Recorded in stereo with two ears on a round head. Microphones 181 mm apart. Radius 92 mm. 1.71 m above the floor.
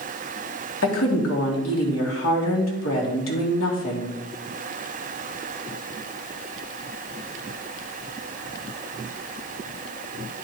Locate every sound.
0.8 s a woman speaking: 75° left (ahead or behind), 2 m